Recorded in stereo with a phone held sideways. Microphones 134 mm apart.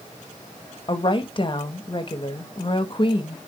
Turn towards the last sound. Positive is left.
turn(degrees=40)  # may be behind; listen again after turning